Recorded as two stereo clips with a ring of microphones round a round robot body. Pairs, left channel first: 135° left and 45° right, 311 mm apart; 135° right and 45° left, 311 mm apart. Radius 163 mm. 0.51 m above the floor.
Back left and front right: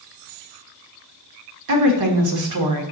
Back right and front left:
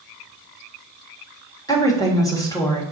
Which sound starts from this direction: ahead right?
A woman speaking, at 1.7 s.